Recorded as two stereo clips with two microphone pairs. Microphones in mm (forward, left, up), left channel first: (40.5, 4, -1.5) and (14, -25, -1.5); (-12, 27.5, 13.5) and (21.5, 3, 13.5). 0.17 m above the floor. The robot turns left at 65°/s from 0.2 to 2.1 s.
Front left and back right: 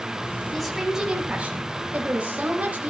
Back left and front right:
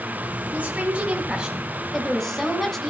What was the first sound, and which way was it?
A woman speaking, 35° right.